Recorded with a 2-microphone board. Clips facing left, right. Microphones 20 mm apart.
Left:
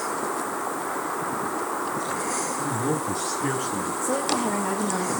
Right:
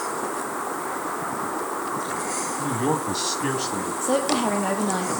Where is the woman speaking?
65° right (ahead or behind), 4.5 m.